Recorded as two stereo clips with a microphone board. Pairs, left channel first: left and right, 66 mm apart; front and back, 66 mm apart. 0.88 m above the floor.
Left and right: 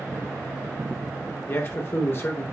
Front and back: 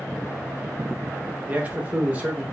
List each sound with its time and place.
1.5 s a man speaking: 120° left, 1.2 m